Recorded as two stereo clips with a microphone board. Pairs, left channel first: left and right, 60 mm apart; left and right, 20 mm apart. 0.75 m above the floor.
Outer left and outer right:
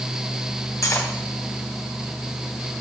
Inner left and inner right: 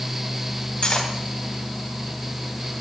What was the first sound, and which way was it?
Cutlery clinking, 55° left (ahead or behind).